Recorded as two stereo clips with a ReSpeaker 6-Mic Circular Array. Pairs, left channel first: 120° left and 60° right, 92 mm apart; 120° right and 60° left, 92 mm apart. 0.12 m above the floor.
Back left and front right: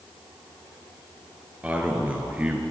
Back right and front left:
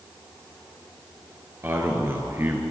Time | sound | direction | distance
1.6 | a man speaking | 5° left | 2 m